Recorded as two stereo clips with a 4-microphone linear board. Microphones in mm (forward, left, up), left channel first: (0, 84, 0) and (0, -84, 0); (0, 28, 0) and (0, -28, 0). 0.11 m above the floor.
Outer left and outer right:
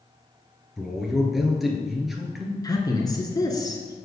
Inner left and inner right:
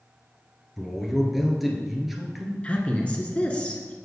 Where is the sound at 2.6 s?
25° left (ahead or behind), 1.1 m.